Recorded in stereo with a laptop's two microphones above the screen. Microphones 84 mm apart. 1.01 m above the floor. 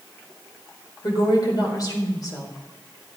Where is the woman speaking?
50° left (ahead or behind), 4 m.